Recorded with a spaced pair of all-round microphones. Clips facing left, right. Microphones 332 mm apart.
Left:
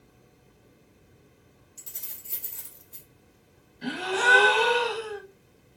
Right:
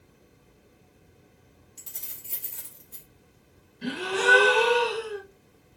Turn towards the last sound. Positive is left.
turn(degrees=-40)  # may be behind; listen again after turning